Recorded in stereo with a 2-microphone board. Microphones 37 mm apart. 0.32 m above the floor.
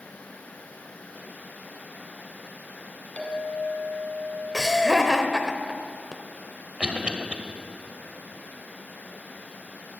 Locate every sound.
3.2 s a clink: 35° left (ahead or behind), 2.0 m
4.5 s laughter: centre (ahead or behind), 0.9 m
6.8 s a cough: 30° right (ahead or behind), 1.4 m